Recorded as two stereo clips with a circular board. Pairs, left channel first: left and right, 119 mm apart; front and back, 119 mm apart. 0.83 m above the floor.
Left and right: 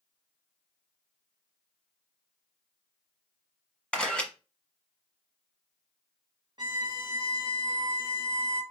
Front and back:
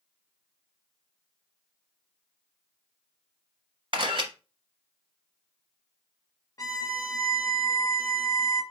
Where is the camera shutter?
170° left, 1.1 m.